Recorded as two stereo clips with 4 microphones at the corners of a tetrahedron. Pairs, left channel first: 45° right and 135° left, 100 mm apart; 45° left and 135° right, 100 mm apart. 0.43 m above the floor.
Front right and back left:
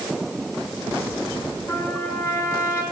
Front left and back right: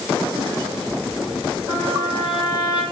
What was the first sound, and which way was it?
A trumpet, 15° left.